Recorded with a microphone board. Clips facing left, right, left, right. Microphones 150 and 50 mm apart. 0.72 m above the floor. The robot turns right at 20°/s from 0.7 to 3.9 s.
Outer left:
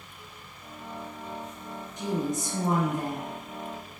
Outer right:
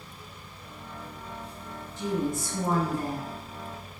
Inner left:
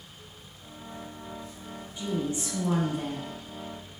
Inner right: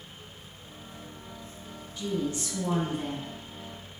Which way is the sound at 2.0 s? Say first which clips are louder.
Outer right 1 dB, even; 20° left (ahead or behind).